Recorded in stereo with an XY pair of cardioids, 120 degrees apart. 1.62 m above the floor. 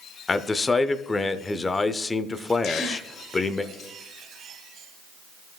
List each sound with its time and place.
0.3 s a man speaking: 25° left, 0.6 m
2.6 s a gasp: 65° left, 1.1 m